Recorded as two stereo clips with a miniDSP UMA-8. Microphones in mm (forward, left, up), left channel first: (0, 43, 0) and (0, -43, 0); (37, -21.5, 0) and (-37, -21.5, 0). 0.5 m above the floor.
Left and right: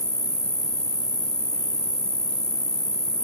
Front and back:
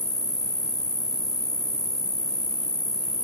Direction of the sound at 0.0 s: 10° left.